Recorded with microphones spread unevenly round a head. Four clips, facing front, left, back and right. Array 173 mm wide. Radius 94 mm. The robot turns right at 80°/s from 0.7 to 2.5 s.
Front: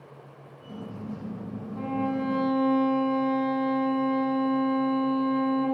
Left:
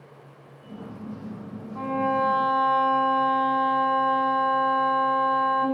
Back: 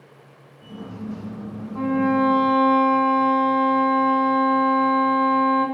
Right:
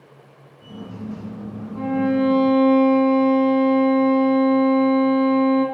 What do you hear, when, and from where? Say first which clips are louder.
1.8 s a violin: right 4 dB, back 9 dB; 170° left, 2.5 m; by 5.7 s 130° right, 2.5 m